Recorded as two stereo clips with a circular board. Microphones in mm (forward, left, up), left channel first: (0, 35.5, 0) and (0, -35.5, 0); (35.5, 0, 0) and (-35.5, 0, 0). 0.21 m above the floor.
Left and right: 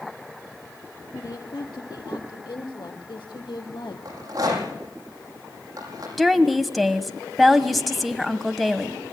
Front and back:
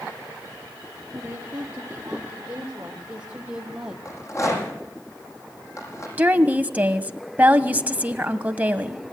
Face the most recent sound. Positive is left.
turn(degrees=180)